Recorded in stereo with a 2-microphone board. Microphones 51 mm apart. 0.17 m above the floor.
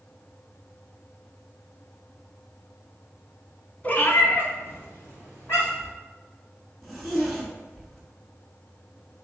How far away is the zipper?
About 1.1 m.